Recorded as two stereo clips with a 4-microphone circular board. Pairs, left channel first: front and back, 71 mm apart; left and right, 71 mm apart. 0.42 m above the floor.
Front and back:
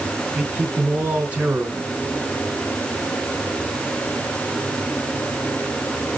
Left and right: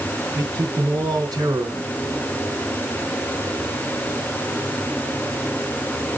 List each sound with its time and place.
0.3 s a man speaking: 110° right, 3.5 m